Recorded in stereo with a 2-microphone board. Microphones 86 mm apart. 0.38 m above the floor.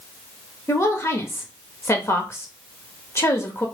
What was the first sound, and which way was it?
A woman speaking, 30° left (ahead or behind).